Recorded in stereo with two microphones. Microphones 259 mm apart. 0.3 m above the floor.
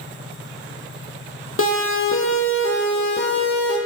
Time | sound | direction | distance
1.6 | a siren | 55° left (ahead or behind) | 7 m